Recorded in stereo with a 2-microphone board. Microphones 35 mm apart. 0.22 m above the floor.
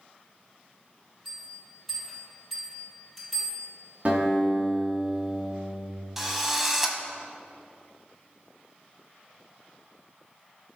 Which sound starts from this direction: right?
A guitar, at 4.0 s.